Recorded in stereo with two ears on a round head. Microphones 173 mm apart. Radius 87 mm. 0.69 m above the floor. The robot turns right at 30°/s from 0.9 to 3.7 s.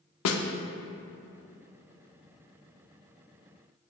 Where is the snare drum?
75° left (ahead or behind), 0.5 m.